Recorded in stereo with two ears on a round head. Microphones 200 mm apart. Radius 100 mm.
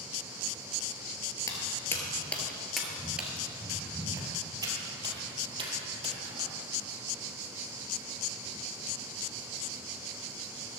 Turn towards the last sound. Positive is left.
turn(degrees=-25)  # may be behind; listen again after turning